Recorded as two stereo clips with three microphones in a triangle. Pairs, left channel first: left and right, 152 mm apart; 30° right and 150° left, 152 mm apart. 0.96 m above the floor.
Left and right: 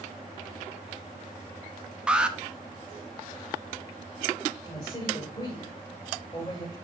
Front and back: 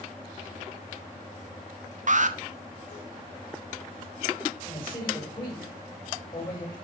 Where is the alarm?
175° right, 0.7 m.